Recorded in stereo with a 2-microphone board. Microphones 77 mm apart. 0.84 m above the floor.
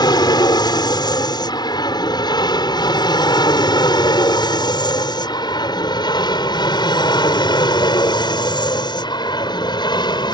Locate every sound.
0.0 s an aircraft: 60° left (ahead or behind); by 10.3 s 70° left (ahead or behind)